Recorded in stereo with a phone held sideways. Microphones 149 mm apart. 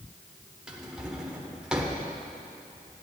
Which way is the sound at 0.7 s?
5° right (ahead or behind).